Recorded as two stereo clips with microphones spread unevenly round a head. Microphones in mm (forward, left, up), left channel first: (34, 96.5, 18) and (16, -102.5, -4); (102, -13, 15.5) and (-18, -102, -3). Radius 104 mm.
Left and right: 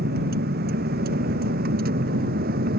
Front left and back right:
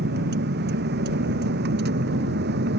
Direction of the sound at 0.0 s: 145° right.